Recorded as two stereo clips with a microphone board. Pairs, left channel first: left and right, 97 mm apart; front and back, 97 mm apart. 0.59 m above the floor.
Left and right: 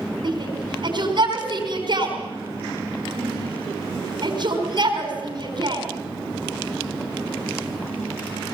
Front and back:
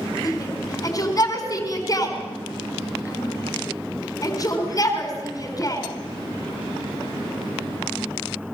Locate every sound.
0.2 s a shout: 55° right, 4.5 m